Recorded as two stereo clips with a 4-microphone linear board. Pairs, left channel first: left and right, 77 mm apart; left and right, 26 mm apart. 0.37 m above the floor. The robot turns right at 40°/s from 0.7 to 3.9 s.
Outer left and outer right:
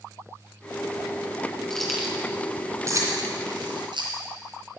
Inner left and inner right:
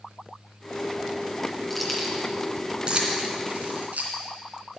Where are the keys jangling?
5° left (ahead or behind), 2.5 m; by 4.1 s 75° right (ahead or behind), 2.5 m.